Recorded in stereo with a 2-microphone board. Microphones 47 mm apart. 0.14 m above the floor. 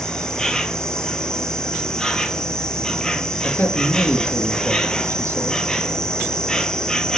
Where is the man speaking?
50° left (ahead or behind), 2.5 m.